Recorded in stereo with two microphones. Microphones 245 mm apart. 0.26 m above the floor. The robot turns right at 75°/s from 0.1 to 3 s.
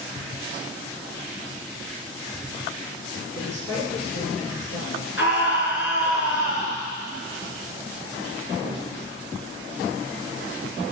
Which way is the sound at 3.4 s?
70° left (ahead or behind).